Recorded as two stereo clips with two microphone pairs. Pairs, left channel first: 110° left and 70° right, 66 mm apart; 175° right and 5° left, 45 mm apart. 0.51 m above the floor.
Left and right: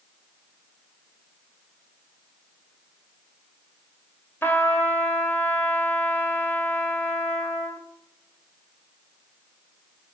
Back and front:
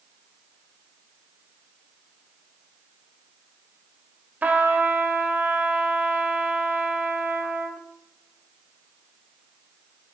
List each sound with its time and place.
4.4 s a trumpet: 55° left, 1.6 m